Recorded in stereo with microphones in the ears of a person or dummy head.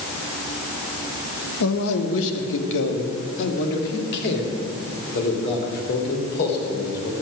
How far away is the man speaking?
About 1.3 m.